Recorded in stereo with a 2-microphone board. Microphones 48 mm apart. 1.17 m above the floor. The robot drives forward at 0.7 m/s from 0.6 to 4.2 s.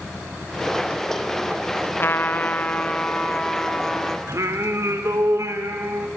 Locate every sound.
2.0 s a trumpet: 45° left (ahead or behind), 0.7 m; by 4.2 s 15° left (ahead or behind), 2 m
4.3 s singing: 65° right (ahead or behind), 2.5 m